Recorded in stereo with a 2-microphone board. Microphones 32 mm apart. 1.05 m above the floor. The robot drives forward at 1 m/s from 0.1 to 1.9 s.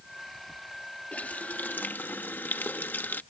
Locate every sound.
1.1 s a running tap: 45° left (ahead or behind); by 3.2 s 75° left (ahead or behind)